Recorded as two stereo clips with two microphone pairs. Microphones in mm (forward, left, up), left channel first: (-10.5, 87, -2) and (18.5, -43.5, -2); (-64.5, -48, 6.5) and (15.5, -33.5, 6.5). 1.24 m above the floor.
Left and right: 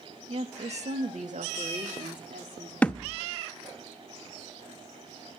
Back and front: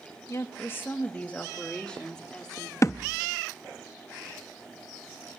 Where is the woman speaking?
120° right, 1.1 m; by 2.7 s 85° right, 3 m.